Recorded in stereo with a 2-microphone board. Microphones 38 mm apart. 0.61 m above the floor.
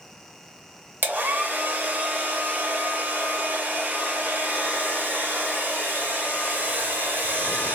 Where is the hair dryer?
60° right (ahead or behind), 0.8 m.